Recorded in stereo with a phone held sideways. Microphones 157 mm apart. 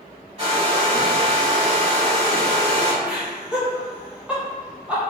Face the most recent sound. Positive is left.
turn(degrees=-10)  # may be behind; listen again after turning